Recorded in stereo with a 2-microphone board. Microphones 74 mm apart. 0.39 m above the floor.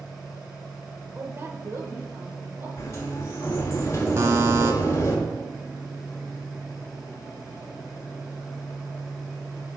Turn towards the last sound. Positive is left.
turn(degrees=-40)  # may be behind; listen again after turning